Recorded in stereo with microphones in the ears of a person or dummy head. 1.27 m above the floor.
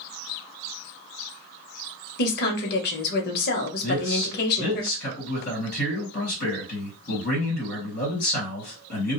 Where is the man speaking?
55° left (ahead or behind), 1.7 m.